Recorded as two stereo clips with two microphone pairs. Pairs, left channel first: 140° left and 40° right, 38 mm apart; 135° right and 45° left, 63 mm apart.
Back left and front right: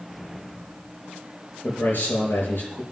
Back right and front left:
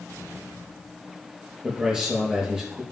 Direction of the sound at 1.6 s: 125° left.